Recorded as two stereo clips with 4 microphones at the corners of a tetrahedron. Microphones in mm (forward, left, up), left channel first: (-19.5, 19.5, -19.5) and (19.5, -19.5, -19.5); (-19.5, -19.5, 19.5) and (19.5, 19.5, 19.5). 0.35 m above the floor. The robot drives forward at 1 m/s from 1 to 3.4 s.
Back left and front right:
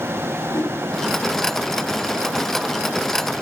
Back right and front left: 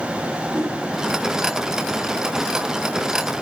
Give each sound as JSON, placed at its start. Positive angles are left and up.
{"t": 0.5, "sound": "a whoosh", "azimuth_deg": 100, "distance_m": 4.5}